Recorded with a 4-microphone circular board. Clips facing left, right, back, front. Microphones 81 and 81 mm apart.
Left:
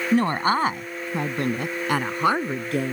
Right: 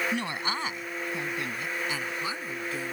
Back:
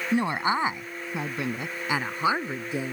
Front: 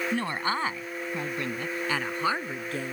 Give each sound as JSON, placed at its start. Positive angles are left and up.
{"t": 0.1, "sound": "a woman speaking", "azimuth_deg": 115}